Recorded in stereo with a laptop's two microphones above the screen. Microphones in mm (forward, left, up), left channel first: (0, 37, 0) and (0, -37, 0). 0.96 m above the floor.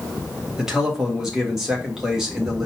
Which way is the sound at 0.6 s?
5° right (ahead or behind).